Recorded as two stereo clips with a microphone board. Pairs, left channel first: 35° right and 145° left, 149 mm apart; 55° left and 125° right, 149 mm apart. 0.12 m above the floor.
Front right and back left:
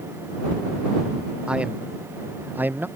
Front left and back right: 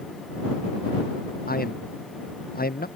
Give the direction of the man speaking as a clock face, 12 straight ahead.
10 o'clock.